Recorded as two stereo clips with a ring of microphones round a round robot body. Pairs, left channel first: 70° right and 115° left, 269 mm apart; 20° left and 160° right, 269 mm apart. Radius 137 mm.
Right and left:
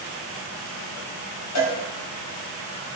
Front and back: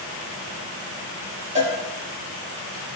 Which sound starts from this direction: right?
A cowbell, at 1.6 s.